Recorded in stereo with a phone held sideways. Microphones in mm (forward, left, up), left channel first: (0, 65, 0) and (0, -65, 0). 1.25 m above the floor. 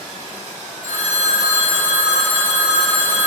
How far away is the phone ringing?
About 1.8 m.